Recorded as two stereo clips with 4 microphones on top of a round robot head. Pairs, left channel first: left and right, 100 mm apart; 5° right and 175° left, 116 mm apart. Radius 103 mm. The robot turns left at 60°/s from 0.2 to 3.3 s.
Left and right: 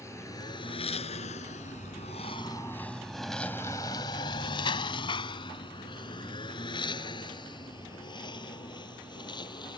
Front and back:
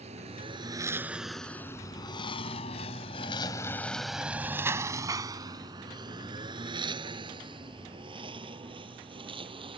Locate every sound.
0.0 s a lawn mower: 150° left; by 9.8 s 135° left